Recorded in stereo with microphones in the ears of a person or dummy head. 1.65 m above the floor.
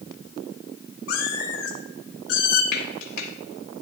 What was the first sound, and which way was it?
A cat meowing, 70° left (ahead or behind).